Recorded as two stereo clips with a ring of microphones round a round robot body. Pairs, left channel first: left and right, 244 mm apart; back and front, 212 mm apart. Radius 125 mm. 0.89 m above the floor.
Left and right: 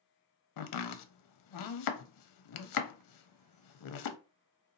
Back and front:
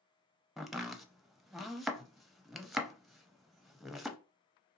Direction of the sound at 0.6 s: 90° left.